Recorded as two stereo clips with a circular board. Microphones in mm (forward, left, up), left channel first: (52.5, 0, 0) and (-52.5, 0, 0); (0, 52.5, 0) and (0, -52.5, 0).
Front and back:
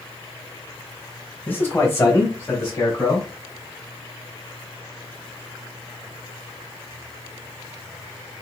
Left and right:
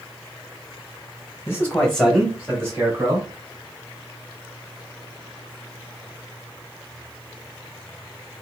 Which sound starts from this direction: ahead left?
A man speaking, at 1.5 s.